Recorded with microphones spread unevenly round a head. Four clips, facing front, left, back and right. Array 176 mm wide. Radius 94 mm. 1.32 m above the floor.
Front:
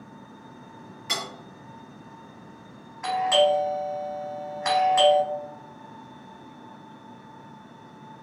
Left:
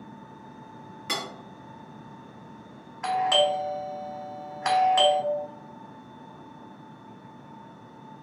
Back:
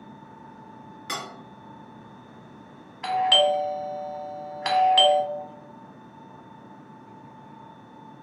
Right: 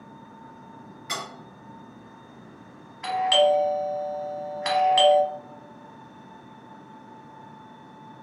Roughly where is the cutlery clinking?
Left.